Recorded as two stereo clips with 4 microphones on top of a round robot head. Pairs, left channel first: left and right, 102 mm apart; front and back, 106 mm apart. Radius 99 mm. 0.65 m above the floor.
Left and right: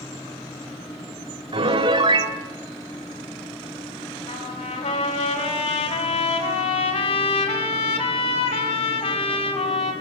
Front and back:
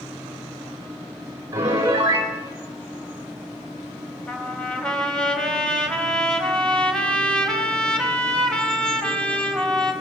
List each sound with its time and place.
1.5 s a piano: 115° right, 3.5 m
4.3 s a trumpet: 80° left, 4.5 m